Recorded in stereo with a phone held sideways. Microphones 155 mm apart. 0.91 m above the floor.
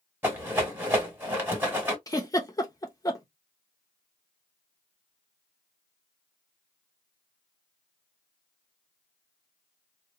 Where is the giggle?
25° left (ahead or behind), 0.7 m.